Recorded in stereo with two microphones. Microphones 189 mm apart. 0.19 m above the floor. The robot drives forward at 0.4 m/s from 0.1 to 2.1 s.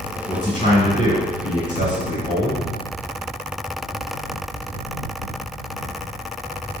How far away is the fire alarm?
I don't hear a fire alarm.